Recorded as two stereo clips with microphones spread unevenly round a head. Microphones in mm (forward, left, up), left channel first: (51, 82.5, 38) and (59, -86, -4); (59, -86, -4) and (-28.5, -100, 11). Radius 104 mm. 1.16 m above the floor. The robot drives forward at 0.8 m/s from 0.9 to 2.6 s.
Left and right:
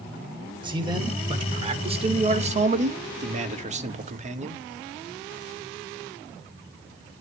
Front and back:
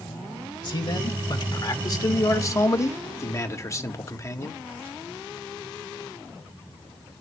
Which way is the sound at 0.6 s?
25° right.